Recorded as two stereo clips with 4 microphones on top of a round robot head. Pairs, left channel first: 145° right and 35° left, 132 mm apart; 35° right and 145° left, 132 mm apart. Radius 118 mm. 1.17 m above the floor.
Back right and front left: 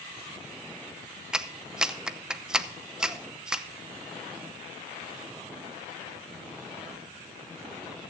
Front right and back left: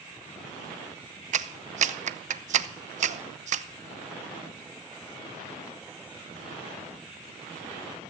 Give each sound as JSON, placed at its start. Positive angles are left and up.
{"t": 1.3, "sound": "a clap", "azimuth_deg": 120, "distance_m": 0.6}